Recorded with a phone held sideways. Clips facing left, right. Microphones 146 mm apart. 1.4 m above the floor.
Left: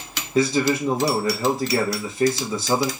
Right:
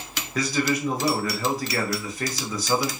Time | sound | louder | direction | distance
0.3 | a man speaking | left 5 dB | 25° left (ahead or behind) | 0.9 m